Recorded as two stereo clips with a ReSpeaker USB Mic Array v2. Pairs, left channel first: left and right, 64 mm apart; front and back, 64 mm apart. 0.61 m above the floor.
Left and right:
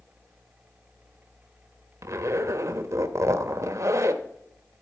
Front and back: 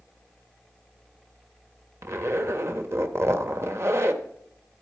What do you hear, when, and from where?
2.0 s a zipper: 135° right, 0.9 m